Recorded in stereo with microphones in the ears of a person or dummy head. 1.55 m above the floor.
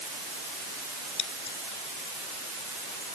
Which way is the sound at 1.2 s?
25° left (ahead or behind).